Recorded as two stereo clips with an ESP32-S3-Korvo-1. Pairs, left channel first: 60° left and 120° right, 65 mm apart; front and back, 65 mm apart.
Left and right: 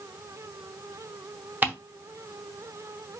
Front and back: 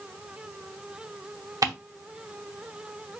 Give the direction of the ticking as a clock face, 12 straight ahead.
6 o'clock.